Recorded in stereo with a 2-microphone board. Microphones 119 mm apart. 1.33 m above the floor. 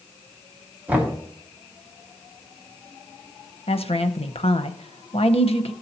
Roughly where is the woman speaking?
Left.